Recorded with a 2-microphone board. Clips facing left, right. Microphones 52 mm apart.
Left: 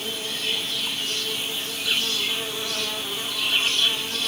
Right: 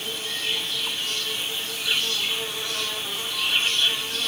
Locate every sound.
0.0 s an insect: 5° left (ahead or behind), 3 m